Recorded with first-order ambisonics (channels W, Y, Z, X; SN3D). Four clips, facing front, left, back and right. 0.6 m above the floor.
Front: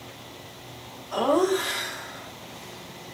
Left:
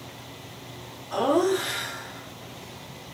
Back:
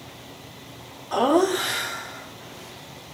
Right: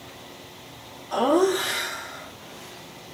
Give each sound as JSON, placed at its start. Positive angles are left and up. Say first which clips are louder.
{"t": 1.1, "sound": "laughter", "louder": "right 2 dB, back 2 dB", "azimuth_deg": -165, "distance_m": 1.6}